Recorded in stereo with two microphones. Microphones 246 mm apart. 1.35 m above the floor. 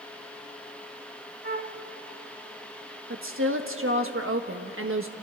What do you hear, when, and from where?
1.4 s a flute: 45° right (ahead or behind), 1.0 m
3.1 s a woman speaking: 65° right (ahead or behind), 1.3 m